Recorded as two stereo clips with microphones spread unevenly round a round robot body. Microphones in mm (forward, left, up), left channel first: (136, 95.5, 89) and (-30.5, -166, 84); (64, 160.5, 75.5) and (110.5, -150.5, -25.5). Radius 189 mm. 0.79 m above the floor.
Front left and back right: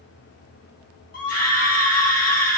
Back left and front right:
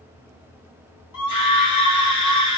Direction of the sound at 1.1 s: 100° left.